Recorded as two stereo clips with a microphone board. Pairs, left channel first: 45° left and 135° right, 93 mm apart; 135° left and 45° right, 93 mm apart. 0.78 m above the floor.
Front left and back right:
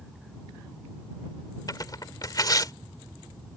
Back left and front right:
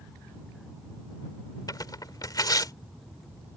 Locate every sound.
1.7 s tearing paper: 90° left